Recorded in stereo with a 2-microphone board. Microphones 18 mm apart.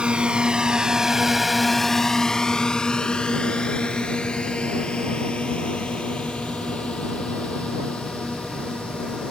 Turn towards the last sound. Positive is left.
turn(degrees=75)  # may be behind; listen again after turning